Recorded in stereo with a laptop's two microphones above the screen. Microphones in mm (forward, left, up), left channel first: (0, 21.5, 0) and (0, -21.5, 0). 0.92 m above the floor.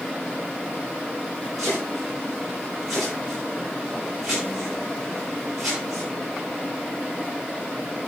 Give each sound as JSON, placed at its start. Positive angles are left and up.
{"t": 1.6, "sound": "chopping", "side_deg": -10, "distance_m": 9.0}